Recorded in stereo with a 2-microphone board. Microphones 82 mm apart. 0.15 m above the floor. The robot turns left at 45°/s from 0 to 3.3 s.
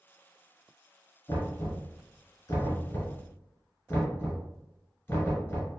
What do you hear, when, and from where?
1.3 s knocking: 35° left (ahead or behind), 1.6 m; by 5.7 s 25° left (ahead or behind), 1.6 m